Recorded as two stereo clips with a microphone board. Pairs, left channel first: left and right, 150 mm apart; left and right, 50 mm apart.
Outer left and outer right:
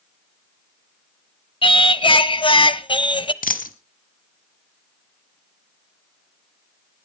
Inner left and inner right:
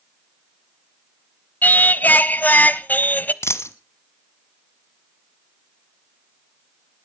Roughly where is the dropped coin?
Left.